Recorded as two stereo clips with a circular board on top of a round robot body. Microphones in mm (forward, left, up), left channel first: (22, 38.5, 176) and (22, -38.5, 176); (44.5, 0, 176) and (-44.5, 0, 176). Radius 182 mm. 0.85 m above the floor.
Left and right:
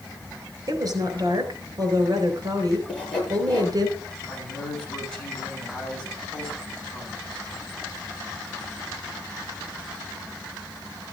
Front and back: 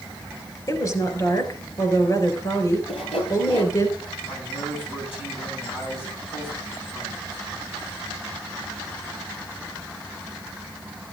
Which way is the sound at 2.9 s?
15° left.